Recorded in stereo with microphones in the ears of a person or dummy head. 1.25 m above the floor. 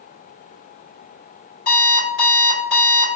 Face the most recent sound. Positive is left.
turn(degrees=75)  # may be behind; listen again after turning